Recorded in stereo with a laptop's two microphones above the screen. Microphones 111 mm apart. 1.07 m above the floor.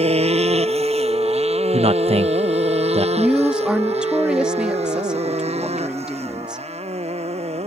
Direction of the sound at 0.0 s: 70° right (ahead or behind).